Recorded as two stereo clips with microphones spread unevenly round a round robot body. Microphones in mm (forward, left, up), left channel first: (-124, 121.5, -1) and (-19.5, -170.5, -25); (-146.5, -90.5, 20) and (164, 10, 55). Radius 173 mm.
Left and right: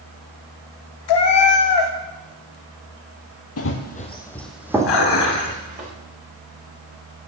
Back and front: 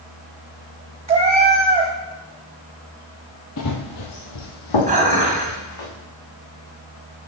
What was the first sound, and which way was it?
A cat meowing, 85° left.